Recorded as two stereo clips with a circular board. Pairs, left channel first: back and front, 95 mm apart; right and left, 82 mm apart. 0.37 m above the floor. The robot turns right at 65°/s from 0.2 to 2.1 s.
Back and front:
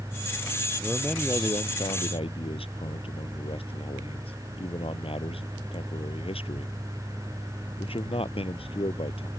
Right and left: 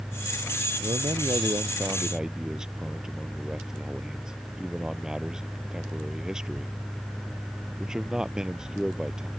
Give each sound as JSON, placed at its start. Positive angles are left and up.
{"t": 0.8, "sound": "a man speaking", "azimuth_deg": 90}